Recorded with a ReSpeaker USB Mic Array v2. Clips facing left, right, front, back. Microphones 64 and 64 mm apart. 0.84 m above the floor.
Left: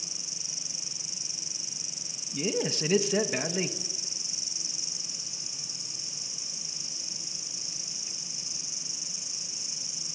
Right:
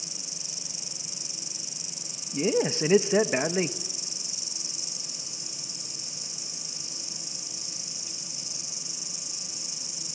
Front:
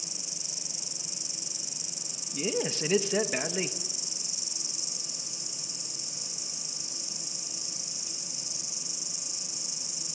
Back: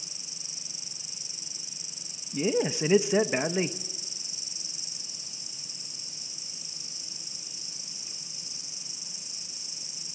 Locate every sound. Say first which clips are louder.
0.0 s an insect: right 2 dB, front 4 dB; 140° left, 0.7 m
2.3 s a man speaking: right 5 dB, back 4 dB; 120° right, 1.1 m